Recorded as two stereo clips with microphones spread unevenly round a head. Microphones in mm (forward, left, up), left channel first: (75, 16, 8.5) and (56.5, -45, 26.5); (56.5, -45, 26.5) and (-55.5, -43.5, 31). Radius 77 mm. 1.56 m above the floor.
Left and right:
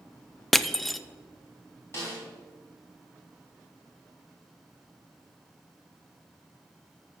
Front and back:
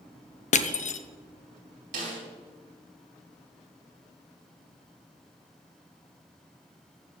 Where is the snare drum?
155° left, 3.5 m.